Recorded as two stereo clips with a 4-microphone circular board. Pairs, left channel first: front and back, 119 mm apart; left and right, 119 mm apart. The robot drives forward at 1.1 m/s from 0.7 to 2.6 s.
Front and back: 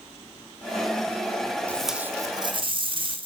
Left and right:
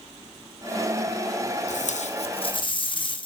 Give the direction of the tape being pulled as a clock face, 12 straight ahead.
9 o'clock.